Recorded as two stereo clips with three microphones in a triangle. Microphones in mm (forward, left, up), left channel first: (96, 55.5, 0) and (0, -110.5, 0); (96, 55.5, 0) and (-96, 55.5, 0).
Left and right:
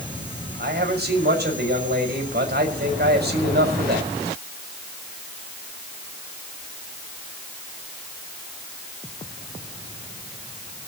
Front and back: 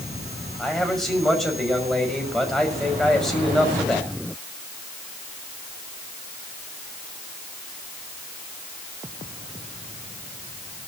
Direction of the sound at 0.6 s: 90° right.